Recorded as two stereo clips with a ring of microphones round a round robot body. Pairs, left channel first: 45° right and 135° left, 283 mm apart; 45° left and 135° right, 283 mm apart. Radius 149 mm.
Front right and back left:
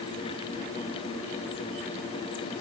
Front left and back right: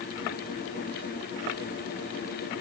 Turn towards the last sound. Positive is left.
No sound to turn to.